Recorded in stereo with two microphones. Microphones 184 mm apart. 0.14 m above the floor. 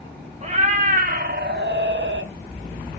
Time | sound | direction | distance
0.4 | a cat meowing | 35° right (ahead or behind) | 2.5 m